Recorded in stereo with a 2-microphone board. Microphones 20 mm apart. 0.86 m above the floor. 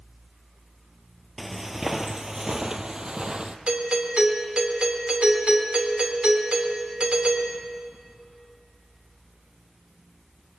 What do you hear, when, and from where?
1.4 s footsteps: 5° right (ahead or behind), 1.1 m; by 3.6 s 45° right (ahead or behind), 1.6 m
3.7 s a doorbell: 70° right (ahead or behind), 3 m